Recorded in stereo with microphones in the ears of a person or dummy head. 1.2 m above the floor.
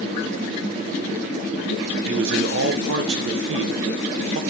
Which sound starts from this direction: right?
A man speaking, at 2.1 s.